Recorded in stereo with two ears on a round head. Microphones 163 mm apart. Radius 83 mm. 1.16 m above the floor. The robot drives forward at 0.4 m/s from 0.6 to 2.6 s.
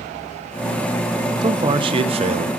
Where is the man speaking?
25° right (ahead or behind), 0.8 m; by 2.5 s 35° right (ahead or behind), 0.6 m.